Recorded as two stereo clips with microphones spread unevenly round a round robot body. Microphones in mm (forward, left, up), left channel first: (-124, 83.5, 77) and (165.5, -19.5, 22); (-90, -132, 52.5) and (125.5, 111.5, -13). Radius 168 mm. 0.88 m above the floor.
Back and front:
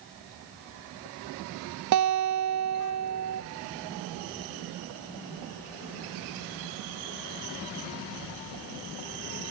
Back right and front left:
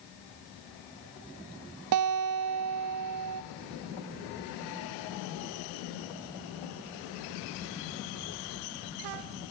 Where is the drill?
I don't hear a drill.